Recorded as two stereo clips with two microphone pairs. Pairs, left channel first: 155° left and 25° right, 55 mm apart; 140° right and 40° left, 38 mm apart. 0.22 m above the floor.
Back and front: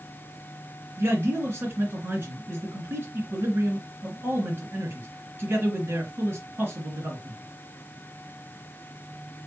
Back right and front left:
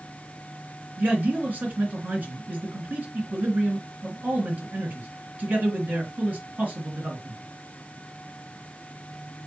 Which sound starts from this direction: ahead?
A man speaking, at 1.0 s.